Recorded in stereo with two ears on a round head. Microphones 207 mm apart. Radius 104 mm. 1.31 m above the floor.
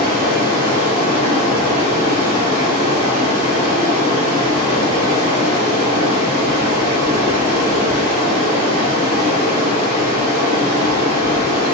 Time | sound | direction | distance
0.0 | running water | 45° right (ahead or behind) | 1.4 m